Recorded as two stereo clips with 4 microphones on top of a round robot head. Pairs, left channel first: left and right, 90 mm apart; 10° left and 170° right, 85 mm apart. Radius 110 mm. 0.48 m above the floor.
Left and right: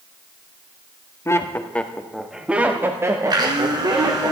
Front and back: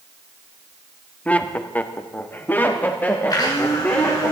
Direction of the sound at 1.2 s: 70° left.